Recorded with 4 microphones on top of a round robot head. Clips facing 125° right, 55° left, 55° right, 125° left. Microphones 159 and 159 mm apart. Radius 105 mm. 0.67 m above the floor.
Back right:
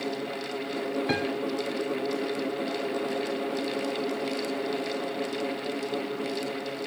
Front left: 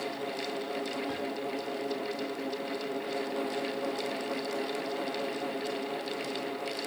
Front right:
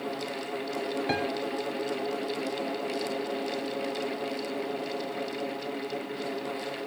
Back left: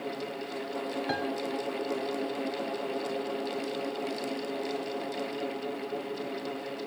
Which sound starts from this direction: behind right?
A piano, at 1.1 s.